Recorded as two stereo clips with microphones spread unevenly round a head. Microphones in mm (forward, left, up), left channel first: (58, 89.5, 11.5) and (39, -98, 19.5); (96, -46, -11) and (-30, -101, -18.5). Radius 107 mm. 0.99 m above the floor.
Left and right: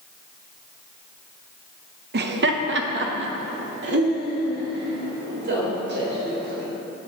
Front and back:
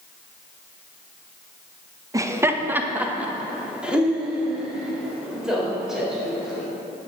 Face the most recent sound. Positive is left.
turn(degrees=-70)